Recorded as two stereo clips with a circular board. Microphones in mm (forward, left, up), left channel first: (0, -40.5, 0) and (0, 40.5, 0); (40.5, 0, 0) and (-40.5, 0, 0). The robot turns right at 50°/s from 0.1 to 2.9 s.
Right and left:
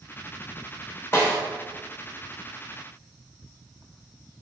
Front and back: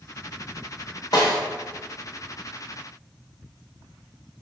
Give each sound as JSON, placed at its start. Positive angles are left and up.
{"t": 1.1, "sound": "a snare drum", "azimuth_deg": -35, "distance_m": 1.1}